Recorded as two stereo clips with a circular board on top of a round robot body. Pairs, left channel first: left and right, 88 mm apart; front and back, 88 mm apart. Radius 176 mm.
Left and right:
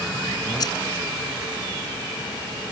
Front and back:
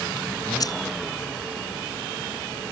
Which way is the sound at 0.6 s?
45° left.